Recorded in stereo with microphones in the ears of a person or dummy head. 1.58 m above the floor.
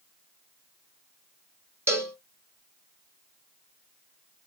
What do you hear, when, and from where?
1.9 s a cowbell: 15° right (ahead or behind), 1.3 m